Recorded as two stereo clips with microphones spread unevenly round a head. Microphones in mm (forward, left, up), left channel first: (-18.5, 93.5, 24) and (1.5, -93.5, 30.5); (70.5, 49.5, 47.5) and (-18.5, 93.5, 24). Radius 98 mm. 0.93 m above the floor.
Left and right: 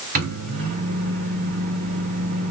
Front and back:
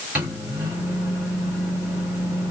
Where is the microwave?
125° right, 2 m.